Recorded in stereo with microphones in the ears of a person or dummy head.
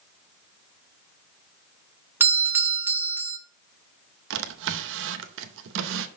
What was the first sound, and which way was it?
A doorbell, 15° right (ahead or behind).